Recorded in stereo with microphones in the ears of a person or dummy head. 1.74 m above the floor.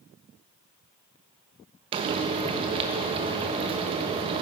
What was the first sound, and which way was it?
Frying, 30° right (ahead or behind).